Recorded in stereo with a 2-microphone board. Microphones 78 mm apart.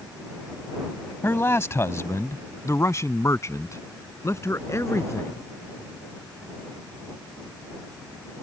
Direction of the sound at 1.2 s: 30° left (ahead or behind).